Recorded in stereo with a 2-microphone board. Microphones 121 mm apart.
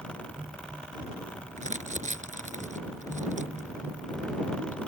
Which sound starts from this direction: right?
Crumpling, at 1.6 s.